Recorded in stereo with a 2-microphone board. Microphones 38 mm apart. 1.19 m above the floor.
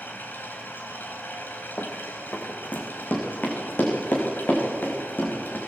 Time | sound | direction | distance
0.0 | running water | 55° left (ahead or behind) | 4 m
1.8 | running footsteps | 50° left (ahead or behind) | 3.5 m